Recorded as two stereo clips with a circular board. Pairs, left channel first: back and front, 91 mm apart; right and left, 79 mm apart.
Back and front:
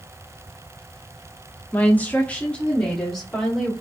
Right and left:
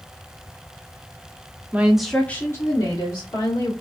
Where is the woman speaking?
130° left, 0.7 m; by 3.7 s 95° right, 1.4 m.